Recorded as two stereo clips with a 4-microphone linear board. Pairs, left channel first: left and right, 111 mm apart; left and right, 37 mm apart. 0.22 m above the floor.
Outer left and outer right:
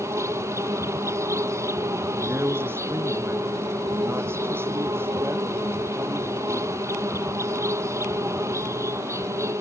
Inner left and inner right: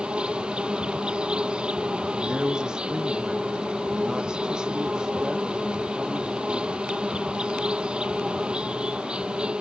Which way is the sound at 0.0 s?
25° right (ahead or behind).